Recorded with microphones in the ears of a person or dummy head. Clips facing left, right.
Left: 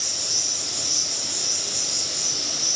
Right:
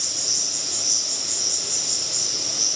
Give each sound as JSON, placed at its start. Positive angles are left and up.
{"t": 0.0, "sound": "an insect", "side_deg": -55, "distance_m": 3.0}